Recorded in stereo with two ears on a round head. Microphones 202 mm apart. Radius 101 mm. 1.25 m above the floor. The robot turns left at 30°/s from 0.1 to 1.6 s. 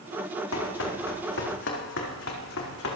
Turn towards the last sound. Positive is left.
turn(degrees=65)  # may be behind; listen again after turning